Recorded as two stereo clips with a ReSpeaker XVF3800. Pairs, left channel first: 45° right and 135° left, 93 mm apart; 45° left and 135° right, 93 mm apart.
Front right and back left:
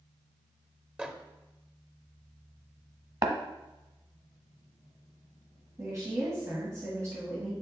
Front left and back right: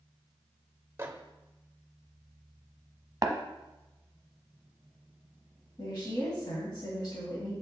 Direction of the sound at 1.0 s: 160° right.